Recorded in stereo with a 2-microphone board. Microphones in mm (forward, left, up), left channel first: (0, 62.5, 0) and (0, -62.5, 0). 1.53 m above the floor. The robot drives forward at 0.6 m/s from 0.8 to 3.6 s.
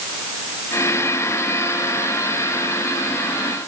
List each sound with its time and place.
Only background noise.